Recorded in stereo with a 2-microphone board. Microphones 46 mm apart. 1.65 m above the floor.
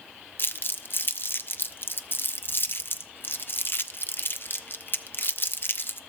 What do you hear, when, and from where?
0.4 s crumpling: 50° left (ahead or behind), 0.5 m